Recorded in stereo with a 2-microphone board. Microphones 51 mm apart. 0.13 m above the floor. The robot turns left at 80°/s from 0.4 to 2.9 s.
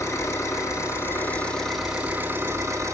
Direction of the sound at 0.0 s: 110° left.